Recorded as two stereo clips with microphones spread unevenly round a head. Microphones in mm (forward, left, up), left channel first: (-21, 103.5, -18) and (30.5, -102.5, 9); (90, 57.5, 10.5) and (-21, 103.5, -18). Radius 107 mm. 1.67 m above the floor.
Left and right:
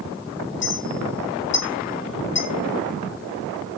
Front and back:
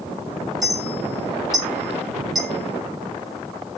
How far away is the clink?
About 7 m.